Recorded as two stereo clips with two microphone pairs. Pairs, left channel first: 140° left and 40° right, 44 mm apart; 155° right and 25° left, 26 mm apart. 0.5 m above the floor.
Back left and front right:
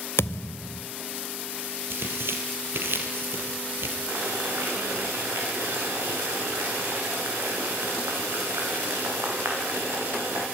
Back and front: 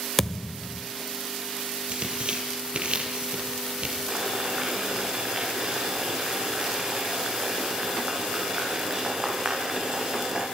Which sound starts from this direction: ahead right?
Boiling, at 4.1 s.